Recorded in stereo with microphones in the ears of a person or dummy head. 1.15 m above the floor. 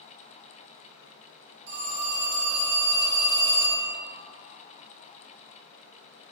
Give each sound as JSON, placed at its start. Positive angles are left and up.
{"t": 1.7, "sound": "a phone ringing", "side_deg": -50, "distance_m": 0.9}